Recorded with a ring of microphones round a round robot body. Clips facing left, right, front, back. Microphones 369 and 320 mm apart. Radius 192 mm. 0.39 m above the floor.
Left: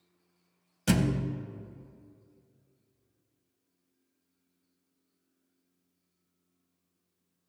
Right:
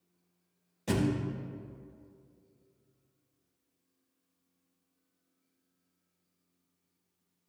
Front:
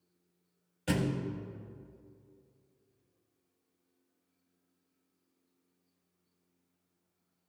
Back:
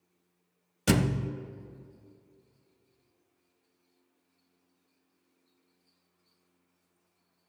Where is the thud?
145° left, 0.6 m.